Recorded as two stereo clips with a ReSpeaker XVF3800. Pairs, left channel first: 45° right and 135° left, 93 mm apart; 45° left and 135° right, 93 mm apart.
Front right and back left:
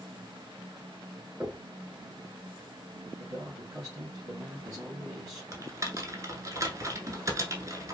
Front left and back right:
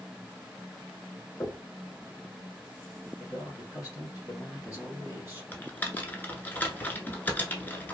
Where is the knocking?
85° left, 1.1 m.